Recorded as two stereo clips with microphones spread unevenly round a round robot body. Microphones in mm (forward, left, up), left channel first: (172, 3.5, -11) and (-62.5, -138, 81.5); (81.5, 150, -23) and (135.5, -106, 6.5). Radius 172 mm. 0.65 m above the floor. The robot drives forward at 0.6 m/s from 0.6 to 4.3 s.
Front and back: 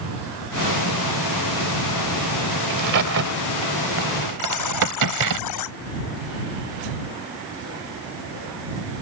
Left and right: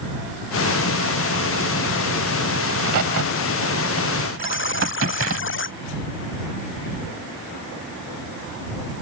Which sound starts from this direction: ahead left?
A buzzer, at 4.4 s.